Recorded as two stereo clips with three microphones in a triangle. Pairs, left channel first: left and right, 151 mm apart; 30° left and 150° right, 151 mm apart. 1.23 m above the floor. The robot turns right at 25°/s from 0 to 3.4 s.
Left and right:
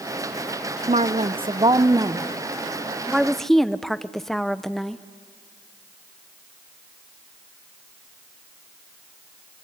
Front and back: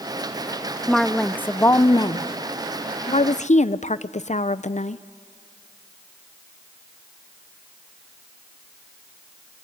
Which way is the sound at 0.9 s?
60° right.